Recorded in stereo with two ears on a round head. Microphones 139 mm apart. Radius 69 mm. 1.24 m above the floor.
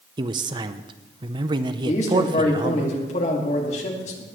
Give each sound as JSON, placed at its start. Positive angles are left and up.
{"t": 0.2, "sound": "a man speaking", "side_deg": -30, "distance_m": 0.6}
{"t": 1.9, "sound": "a man speaking", "side_deg": 45, "distance_m": 2.0}